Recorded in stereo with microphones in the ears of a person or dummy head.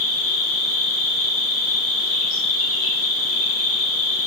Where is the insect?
65° left (ahead or behind), 2.5 m.